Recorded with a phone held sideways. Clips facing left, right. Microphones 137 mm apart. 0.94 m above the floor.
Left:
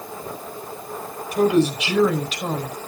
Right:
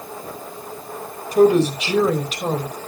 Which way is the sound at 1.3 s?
35° right (ahead or behind).